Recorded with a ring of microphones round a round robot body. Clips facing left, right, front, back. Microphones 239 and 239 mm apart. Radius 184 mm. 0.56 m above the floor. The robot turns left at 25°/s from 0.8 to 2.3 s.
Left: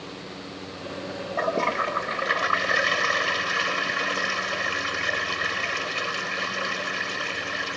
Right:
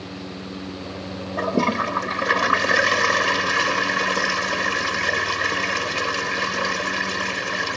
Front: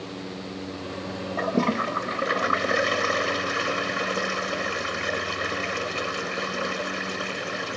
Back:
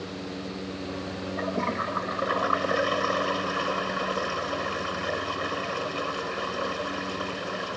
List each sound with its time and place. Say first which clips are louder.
1.4 s a toilet flushing: right 6 dB, front 7 dB; 45° right; by 7.8 s 70° right